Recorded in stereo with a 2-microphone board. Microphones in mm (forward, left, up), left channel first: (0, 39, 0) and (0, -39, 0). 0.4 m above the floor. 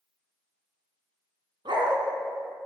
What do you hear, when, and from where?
1.6 s a dog barking: 85° right, 1.2 m